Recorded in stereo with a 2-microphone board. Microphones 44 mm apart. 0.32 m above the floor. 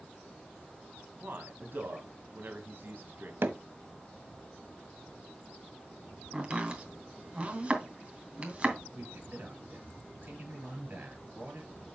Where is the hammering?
60° right (ahead or behind), 1.2 m.